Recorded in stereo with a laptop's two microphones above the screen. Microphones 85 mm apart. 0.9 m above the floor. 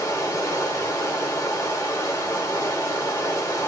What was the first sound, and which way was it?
Running water, 35° left (ahead or behind).